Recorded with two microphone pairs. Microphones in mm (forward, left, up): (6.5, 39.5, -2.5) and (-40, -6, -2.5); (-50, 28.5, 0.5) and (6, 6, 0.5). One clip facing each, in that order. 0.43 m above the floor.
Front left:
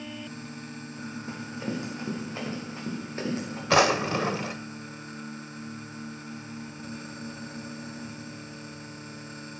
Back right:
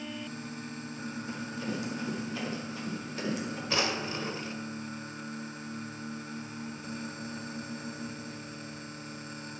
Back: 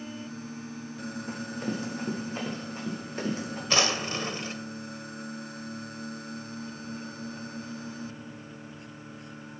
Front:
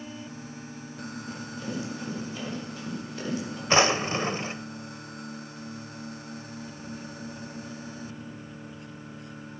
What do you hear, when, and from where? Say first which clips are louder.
1.3 s running footsteps: front left 3 dB, back 3 dB; 105° left, 6.5 m; by 3.6 s 100° left, 8.5 m
3.7 s a drawer: front left 11 dB, front 5 dB; 40° left, 0.5 m